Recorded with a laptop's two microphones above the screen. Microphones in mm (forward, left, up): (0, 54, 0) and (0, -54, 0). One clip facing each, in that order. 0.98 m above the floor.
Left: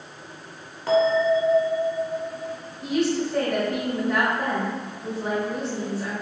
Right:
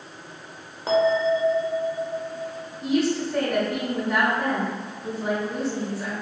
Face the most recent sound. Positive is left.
turn(degrees=-5)  # may be behind; listen again after turning